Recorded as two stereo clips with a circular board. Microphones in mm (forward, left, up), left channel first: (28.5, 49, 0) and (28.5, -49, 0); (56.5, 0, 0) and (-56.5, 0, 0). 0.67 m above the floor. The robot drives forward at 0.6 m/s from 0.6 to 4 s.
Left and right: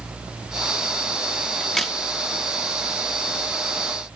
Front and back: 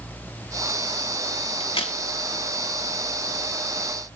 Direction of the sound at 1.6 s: 5° left.